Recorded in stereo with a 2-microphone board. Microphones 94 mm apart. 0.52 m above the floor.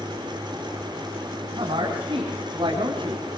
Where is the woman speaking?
65° right (ahead or behind), 5 m; by 3.3 s 55° right (ahead or behind), 4.5 m.